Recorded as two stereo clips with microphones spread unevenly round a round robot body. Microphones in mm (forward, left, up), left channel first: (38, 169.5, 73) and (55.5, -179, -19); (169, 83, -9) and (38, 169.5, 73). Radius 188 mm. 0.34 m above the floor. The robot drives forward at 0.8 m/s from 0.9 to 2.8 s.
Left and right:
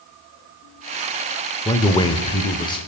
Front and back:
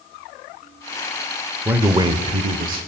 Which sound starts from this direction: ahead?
A man speaking, at 1.6 s.